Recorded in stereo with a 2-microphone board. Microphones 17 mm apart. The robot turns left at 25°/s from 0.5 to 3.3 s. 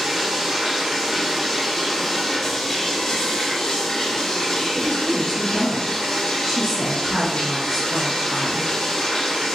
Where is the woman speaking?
30° right (ahead or behind), 1.3 m.